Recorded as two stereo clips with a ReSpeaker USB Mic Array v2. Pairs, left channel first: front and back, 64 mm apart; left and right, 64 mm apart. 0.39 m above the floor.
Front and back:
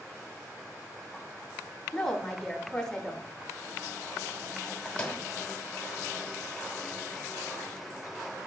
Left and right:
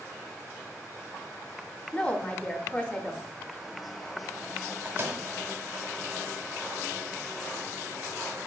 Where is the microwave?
65° right, 0.9 m.